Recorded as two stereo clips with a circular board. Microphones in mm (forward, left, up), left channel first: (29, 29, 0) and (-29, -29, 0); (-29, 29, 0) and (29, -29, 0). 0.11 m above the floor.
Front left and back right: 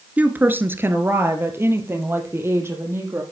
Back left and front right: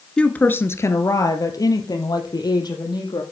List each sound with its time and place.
0.2 s a woman speaking: 165° right, 1.2 m; by 3.2 s 165° left, 4 m